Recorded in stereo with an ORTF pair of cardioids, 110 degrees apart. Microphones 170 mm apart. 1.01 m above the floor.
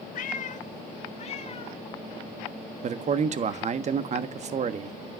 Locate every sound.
0.1 s a cat meowing: 55° left, 1.1 m; by 1.8 s 35° left, 2.5 m
2.8 s a man speaking: 40° right, 1.5 m